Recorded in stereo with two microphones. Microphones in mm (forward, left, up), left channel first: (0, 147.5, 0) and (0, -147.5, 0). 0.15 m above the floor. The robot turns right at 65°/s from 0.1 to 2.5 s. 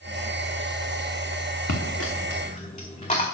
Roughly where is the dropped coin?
Left.